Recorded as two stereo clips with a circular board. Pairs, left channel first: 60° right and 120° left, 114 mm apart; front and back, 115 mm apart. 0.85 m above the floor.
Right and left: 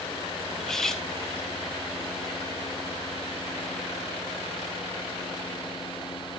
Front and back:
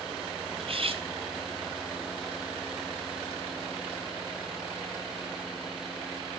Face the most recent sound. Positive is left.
turn(degrees=-145)